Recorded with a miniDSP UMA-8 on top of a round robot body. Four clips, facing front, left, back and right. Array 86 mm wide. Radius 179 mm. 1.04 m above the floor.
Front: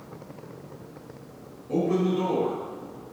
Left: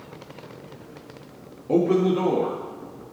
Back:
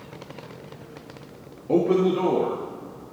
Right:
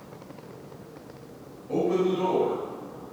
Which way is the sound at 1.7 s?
140° left.